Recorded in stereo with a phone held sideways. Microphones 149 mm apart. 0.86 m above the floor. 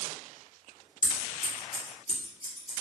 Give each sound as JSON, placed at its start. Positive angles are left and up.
{"t": 1.0, "sound": "scissors", "side_deg": 60, "distance_m": 1.7}